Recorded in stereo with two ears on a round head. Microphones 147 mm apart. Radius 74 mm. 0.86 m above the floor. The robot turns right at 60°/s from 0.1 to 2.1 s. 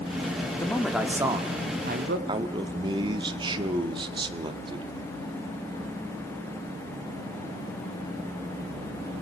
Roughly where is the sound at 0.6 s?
Behind.